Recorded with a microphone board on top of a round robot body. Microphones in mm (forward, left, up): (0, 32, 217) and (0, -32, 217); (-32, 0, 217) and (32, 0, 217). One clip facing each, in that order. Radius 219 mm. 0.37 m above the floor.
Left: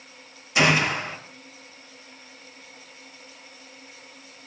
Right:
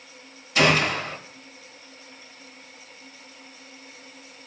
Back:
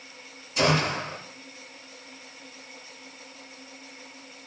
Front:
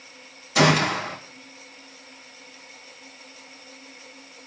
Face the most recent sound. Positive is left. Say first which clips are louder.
# even, front 5 dB
turn(degrees=15)